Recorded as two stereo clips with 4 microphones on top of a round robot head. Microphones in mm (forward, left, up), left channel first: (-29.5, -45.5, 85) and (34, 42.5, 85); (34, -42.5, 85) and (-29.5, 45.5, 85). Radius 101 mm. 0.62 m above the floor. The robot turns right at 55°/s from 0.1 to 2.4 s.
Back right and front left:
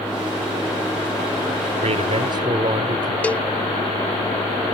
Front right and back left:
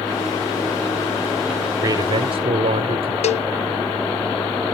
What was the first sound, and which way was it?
A man speaking, 70° left.